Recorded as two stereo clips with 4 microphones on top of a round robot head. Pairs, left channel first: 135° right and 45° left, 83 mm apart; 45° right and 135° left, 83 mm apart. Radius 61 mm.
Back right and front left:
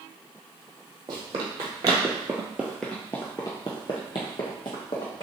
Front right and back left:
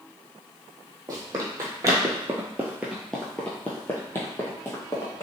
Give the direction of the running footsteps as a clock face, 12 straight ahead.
9 o'clock.